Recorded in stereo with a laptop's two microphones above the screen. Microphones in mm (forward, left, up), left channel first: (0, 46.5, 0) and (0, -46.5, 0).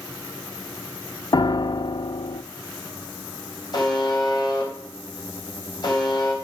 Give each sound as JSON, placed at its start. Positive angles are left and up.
{"t": 1.3, "sound": "a piano", "side_deg": 55, "distance_m": 0.8}
{"t": 3.7, "sound": "a buzzer", "side_deg": 50, "distance_m": 4.0}